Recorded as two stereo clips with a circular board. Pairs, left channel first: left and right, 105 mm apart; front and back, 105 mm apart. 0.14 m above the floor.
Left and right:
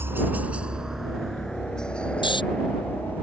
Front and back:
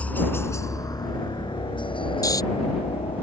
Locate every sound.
0.0 s a helicopter: 60° right; by 3.2 s 20° left
2.2 s snoring: 55° left